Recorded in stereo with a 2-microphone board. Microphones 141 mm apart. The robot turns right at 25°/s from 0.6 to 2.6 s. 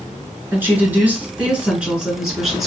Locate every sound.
0.5 s a woman speaking: 15° right (ahead or behind), 1.2 m; by 2.7 s centre (ahead or behind), 1.2 m